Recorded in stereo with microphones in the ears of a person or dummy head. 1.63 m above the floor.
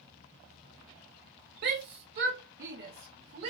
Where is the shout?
60° right (ahead or behind), 0.7 m; by 3.5 s 55° right (ahead or behind), 2 m.